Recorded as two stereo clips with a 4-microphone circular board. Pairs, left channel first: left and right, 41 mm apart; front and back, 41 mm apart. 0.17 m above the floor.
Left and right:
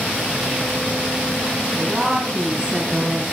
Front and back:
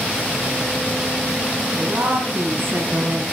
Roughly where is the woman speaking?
Behind.